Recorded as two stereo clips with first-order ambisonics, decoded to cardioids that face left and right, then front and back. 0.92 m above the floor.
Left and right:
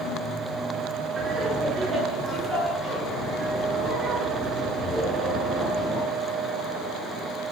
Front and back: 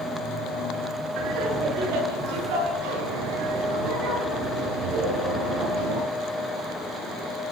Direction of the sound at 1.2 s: 170° right.